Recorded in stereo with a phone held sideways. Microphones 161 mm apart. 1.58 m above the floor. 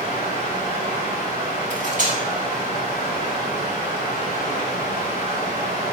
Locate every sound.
0.0 s running water: 65° right (ahead or behind), 3.5 m
1.7 s cutlery clinking: 55° right (ahead or behind), 1.7 m